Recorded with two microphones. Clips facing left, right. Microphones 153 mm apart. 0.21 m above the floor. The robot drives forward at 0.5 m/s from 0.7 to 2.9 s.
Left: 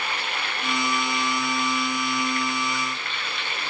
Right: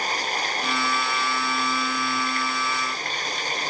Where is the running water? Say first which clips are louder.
Right 3 dB; 40° right (ahead or behind).